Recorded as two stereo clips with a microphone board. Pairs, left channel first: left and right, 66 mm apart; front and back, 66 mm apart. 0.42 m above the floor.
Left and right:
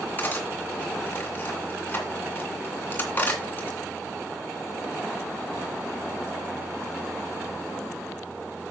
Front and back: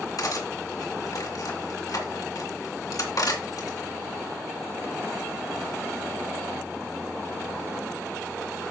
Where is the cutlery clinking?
30° left, 2.5 m.